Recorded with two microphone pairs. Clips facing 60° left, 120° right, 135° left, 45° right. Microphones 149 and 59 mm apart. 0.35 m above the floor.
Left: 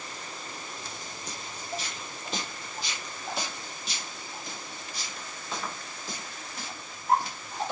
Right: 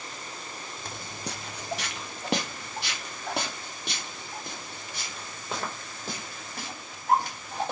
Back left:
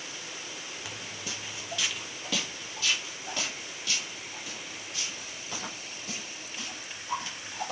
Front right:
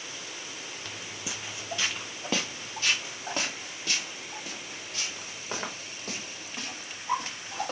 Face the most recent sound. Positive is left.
turn(degrees=-80)